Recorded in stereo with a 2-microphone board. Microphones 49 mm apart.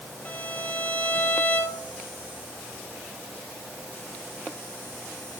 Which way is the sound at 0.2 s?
30° left (ahead or behind).